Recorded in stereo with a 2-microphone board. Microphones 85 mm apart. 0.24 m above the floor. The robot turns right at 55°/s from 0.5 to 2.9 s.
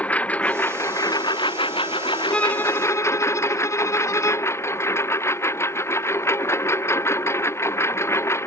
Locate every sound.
0.0 s a lawn mower: 15° left; by 8.5 s 150° left
2.3 s a violin: 10° left; by 4.6 s 45° left